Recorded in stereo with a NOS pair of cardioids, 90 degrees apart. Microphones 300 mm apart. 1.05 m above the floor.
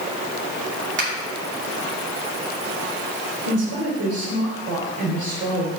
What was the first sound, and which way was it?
A finger snap, 40° right.